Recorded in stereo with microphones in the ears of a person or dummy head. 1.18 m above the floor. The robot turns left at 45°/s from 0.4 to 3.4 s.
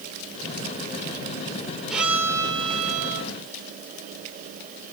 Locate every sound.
1.9 s a violin: 5° left, 1.0 m; by 3.3 s 60° right, 1.0 m